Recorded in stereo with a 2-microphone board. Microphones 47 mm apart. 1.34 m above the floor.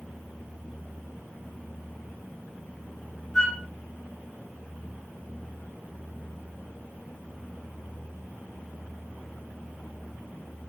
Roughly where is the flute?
Centre.